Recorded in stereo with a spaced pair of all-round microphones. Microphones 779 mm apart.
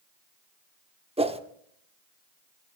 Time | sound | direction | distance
1.2 | a whoosh | 10° right (ahead or behind) | 0.8 m